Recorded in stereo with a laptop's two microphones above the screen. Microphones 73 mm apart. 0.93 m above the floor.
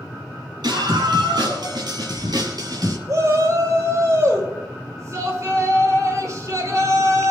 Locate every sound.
0.6 s a scream: 85° right, 8 m; by 3.0 s 65° right (ahead or behind), 6 m
3.1 s a shout: 50° right (ahead or behind), 4.5 m